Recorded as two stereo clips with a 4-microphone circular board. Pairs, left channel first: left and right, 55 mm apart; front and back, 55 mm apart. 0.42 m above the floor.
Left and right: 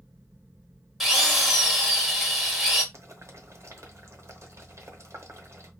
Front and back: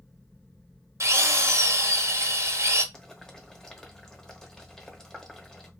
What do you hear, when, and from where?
1.0 s a drill: 175° right, 1.0 m
2.9 s boiling: 80° right, 0.9 m